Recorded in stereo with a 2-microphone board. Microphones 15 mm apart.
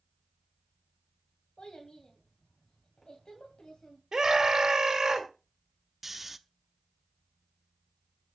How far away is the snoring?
About 0.6 m.